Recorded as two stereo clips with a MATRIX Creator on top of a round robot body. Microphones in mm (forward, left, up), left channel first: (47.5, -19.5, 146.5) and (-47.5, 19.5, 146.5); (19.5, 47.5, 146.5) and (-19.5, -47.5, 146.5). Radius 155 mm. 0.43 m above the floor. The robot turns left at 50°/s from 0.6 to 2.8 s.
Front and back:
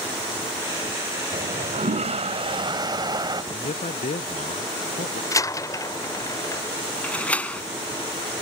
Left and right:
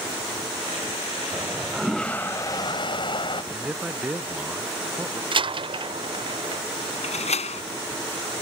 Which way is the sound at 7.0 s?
55° left.